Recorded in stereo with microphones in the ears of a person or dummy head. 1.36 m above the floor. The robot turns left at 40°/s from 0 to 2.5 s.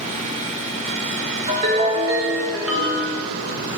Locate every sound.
1.5 s a ringtone: 145° right, 1.0 m; by 3.1 s 175° left, 1.0 m